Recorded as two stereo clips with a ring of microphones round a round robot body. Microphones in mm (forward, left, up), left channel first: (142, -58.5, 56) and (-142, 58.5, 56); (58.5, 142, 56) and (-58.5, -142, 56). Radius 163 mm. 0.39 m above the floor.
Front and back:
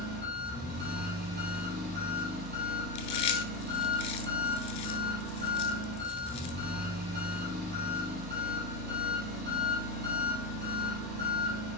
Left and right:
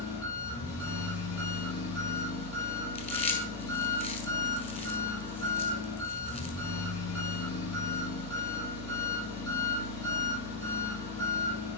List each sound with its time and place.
0.0 s an engine running: 95° left, 3.5 m
3.0 s chewing: straight ahead, 1.5 m